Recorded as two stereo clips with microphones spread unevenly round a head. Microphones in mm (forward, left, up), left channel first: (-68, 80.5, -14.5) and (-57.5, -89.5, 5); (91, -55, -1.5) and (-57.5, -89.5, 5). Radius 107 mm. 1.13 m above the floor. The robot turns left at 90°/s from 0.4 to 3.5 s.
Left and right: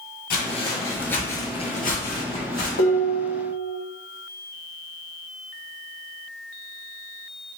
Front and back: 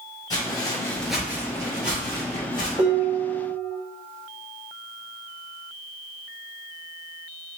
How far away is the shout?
I don't hear a shout.